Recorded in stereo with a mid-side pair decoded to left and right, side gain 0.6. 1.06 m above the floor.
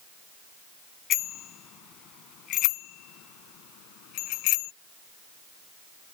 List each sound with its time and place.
1.1 s a bicycle bell: 55° left; by 4.7 s 80° left